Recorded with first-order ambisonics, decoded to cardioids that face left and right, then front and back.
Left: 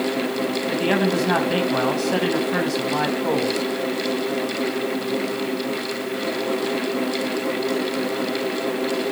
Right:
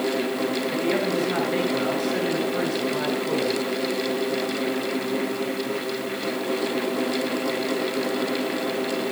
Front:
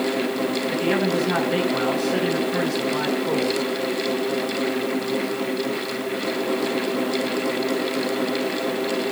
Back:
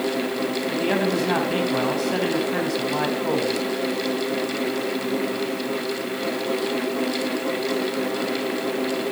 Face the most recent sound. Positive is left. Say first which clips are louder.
# left 5 dB, even
turn(degrees=110)